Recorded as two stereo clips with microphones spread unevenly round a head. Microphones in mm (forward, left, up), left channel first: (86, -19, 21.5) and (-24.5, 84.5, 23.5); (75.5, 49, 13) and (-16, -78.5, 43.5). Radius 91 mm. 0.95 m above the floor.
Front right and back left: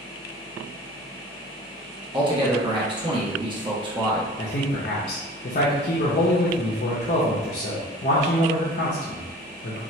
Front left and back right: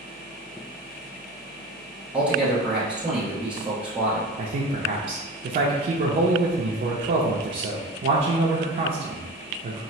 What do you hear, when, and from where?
2.1 s a man speaking: 135° left, 0.9 m
4.4 s a man speaking: 85° right, 0.5 m